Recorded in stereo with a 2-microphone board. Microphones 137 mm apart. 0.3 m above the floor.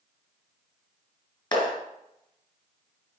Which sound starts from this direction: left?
A clap, at 1.5 s.